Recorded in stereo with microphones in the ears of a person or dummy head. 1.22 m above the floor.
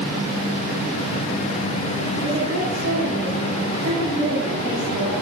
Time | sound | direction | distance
2.2 | a woman speaking | 85° right | 3.5 m